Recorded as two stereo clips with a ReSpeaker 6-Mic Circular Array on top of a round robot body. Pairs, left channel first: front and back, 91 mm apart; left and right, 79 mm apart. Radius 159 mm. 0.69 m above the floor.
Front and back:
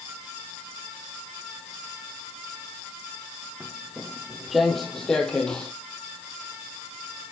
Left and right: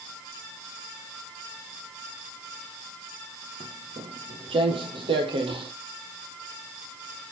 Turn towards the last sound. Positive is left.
turn(degrees=-80)